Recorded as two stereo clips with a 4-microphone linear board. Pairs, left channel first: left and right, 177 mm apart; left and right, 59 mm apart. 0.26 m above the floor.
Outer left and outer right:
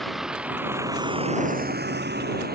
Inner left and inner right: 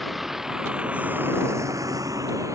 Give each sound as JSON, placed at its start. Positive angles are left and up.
{"t": 0.0, "sound": "a vehicle", "side_deg": 0}